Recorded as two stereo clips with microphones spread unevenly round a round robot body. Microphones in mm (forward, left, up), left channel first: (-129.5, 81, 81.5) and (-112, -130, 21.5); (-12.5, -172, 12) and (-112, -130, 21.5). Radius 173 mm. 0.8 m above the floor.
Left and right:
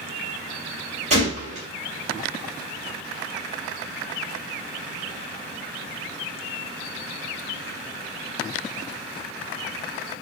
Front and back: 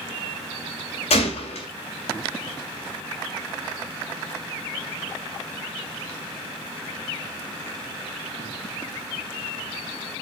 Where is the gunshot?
20° right, 2 m.